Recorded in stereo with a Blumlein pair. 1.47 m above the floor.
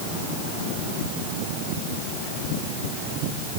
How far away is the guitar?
I don't hear a guitar.